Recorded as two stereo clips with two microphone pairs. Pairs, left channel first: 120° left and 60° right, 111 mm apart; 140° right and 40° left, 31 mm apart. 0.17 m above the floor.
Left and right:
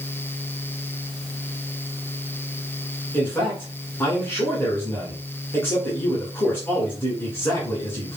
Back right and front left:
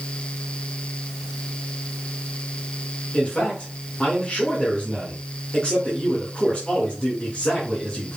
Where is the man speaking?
175° right, 2 m.